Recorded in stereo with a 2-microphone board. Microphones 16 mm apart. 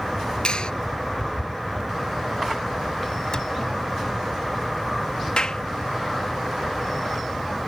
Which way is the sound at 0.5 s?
55° left (ahead or behind).